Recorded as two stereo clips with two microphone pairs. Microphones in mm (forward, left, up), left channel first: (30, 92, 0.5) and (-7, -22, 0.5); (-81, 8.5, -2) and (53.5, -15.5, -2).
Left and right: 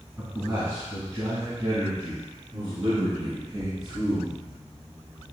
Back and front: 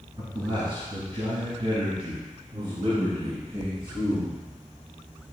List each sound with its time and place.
0.2 s a man speaking: 45° right, 1.9 m; by 4.3 s 55° right, 4 m